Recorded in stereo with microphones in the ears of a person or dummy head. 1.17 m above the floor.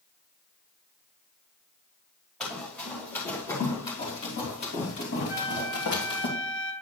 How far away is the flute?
About 3.5 m.